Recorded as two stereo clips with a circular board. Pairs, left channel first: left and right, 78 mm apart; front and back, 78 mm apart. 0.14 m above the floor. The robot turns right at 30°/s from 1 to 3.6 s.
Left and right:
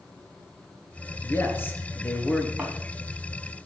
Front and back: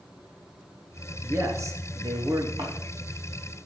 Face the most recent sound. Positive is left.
turn(degrees=-130)